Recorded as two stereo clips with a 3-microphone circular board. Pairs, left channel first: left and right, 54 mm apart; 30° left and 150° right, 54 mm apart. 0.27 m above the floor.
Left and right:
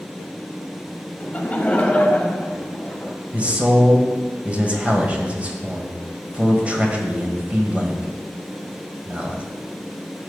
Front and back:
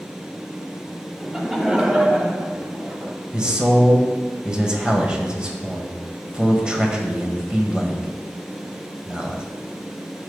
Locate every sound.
1.2 s laughter: 125° left, 1.3 m; by 3.1 s 155° left, 1.9 m
3.3 s a man speaking: 105° right, 1.5 m